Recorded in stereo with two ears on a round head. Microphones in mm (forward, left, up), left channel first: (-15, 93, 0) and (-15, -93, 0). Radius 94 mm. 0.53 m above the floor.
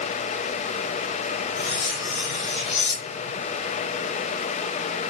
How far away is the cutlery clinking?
About 2 m.